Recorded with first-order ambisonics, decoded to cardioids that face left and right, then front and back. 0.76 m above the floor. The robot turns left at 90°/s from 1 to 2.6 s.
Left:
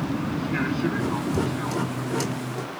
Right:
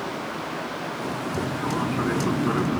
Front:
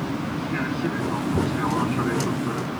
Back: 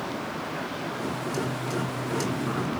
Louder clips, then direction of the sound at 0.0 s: Left 1 dB, front 3 dB; 50° left.